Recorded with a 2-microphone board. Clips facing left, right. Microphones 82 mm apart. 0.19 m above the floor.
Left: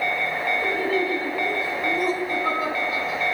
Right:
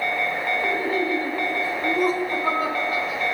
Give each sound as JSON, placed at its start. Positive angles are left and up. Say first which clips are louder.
{"t": 0.6, "sound": "laughter", "louder": "even", "side_deg": -20, "distance_m": 1.0}